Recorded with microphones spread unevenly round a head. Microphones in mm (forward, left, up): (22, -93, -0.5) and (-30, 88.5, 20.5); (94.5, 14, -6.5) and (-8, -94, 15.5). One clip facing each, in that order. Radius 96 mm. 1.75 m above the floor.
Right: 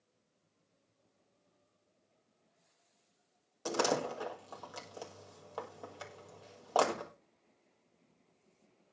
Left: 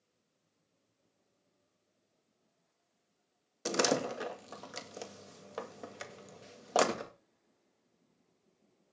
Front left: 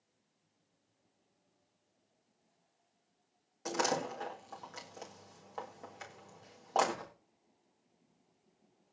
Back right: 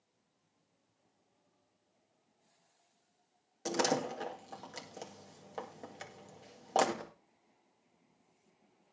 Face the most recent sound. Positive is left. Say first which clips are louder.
# left 2 dB, back right 2 dB
turn(degrees=165)